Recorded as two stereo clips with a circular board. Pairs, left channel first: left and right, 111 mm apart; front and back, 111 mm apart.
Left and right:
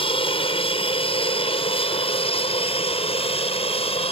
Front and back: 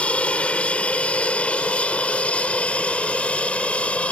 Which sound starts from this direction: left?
An aircraft, at 0.0 s.